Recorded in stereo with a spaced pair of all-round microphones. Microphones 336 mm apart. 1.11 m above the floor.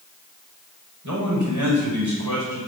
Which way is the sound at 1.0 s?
60° right (ahead or behind).